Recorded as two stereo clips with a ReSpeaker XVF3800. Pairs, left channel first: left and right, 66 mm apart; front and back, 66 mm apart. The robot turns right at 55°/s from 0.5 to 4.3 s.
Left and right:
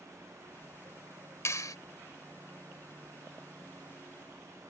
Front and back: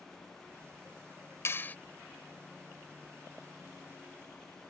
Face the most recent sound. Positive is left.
turn(degrees=-155)